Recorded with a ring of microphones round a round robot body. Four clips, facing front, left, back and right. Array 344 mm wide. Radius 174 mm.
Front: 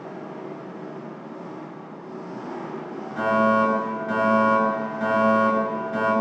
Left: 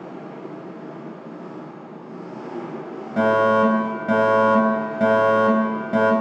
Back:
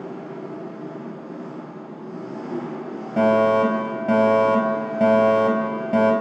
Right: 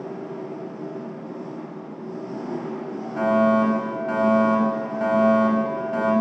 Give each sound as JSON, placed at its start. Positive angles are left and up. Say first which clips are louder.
{"t": 0.0, "sound": "an engine running", "louder": "right 3 dB, back 2 dB", "azimuth_deg": -120, "distance_m": 9.0}
{"t": 3.2, "sound": "a fire alarm", "louder": "left 2 dB, back 3 dB", "azimuth_deg": 145, "distance_m": 5.5}